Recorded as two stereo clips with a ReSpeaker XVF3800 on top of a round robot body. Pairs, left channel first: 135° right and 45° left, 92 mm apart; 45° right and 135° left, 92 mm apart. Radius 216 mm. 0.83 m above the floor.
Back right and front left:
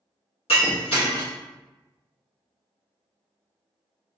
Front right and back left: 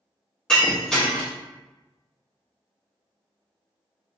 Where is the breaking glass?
130° right, 0.7 m.